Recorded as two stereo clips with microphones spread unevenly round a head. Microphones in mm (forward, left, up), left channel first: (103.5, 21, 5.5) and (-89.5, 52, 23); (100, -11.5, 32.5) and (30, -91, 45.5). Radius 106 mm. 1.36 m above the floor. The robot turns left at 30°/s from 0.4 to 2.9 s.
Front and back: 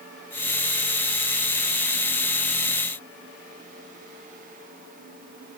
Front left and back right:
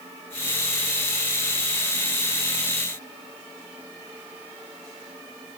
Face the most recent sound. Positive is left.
No sound to turn to.